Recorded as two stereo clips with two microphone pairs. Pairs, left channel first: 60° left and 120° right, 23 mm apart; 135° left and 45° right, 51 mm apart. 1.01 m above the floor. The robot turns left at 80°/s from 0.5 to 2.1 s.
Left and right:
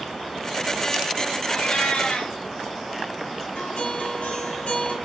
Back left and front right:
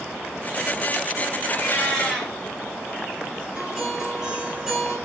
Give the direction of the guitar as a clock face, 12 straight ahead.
11 o'clock.